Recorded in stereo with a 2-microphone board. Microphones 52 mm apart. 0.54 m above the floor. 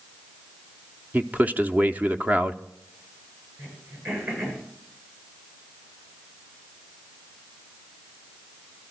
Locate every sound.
1.1 s a man speaking: 30° right (ahead or behind), 0.7 m
3.6 s throat clearing: 45° right (ahead or behind), 9 m